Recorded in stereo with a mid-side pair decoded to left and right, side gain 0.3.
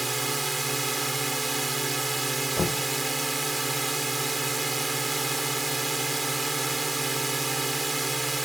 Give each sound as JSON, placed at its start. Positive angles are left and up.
{"t": 0.0, "sound": "a drone", "azimuth_deg": -35}
{"t": 2.6, "sound": "knocking", "azimuth_deg": 40}